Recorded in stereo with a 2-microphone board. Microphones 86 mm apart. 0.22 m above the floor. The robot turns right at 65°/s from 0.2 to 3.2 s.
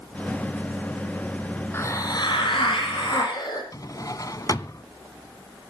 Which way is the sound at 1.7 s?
25° left.